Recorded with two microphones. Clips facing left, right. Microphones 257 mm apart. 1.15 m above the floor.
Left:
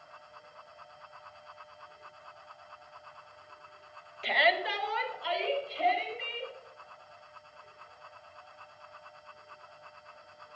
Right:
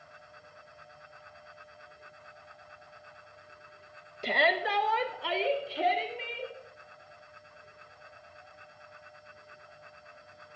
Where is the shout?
45° right (ahead or behind), 0.9 m; by 6.5 s 75° right (ahead or behind), 2.5 m.